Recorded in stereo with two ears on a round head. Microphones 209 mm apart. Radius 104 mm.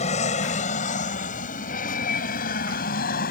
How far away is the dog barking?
I don't hear a dog barking.